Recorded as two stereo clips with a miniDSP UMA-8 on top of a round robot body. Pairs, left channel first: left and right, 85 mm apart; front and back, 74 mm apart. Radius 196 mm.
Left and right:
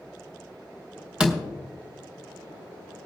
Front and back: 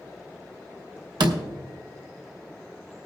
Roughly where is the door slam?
Behind.